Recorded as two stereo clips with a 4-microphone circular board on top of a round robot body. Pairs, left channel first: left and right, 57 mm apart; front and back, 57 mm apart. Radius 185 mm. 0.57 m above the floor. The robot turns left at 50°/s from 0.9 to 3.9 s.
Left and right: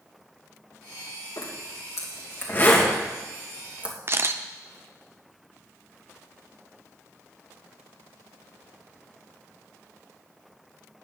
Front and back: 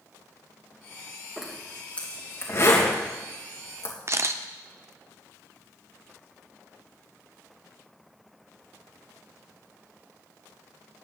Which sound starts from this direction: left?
A zipper, at 1.4 s.